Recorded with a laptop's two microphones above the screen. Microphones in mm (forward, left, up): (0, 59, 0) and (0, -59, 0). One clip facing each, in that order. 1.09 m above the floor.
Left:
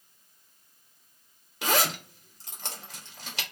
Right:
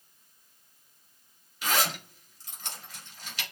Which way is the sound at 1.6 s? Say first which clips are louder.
Left 3 dB; 85° left.